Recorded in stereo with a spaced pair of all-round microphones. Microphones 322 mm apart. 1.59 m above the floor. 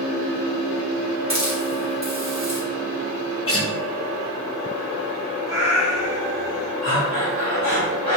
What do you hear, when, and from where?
1.3 s a hiss: 40° right (ahead or behind), 1.1 m
3.5 s a guitar: 45° left (ahead or behind), 0.8 m
5.5 s a cat meowing: 50° left (ahead or behind), 1.1 m
6.8 s breathing: 55° left (ahead or behind), 2.0 m